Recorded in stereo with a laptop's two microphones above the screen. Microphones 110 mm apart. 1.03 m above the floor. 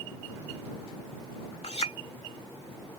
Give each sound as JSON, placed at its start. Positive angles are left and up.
{"t": 1.6, "sound": "a clink", "side_deg": 75}